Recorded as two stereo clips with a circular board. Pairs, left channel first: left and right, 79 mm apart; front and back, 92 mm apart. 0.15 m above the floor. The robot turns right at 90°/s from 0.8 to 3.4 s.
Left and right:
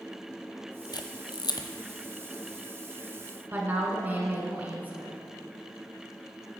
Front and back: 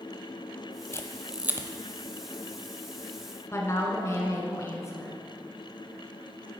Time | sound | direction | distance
0.9 | a camera shutter | 60° left | 0.8 m
3.5 | a woman speaking | 35° right | 1.3 m